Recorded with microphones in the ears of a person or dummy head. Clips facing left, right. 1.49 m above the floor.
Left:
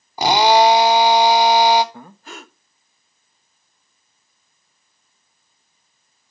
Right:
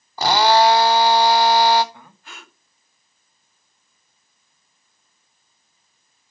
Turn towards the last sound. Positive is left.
turn(degrees=40)  # may be behind; listen again after turning